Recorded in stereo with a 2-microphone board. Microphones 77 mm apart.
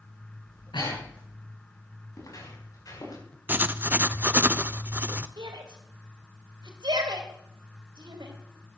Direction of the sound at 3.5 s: 25° right (ahead or behind).